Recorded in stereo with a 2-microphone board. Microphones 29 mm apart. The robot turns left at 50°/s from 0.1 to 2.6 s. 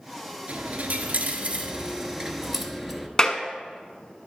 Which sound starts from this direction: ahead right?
A dropped coin, at 0.5 s.